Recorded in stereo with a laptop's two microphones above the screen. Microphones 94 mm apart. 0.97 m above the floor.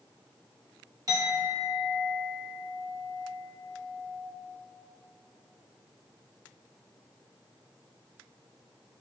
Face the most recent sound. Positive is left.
turn(degrees=-40)  # may be behind; listen again after turning